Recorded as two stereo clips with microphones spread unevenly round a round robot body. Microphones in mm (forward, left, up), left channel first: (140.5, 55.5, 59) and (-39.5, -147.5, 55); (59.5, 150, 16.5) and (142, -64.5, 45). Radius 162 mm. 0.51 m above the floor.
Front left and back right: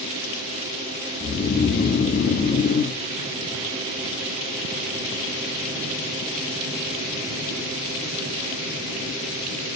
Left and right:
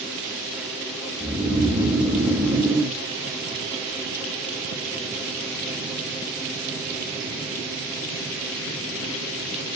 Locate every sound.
1.2 s snoring: 15° left, 0.7 m